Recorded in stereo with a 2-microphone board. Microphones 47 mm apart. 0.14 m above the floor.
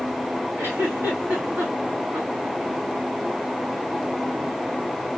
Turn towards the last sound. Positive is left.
turn(degrees=-70)  # may be behind; listen again after turning